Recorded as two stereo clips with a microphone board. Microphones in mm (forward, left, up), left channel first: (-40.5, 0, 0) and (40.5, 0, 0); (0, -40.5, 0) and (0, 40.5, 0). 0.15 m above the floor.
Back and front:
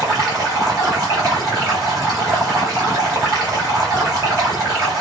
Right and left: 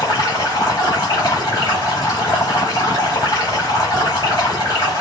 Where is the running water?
50° right, 1.4 m.